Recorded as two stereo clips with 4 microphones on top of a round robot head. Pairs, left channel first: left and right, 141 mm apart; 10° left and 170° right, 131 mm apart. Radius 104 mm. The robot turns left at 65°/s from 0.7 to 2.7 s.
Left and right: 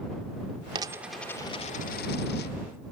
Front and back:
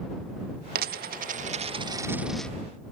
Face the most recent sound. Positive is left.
turn(degrees=80)